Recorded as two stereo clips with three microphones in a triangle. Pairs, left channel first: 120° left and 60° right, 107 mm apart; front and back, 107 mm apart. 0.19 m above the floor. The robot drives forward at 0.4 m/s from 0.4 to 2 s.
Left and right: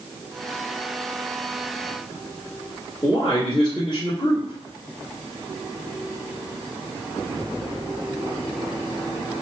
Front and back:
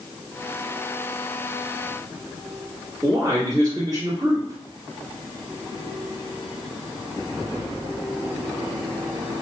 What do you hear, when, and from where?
3.0 s a man speaking: 140° left, 1.7 m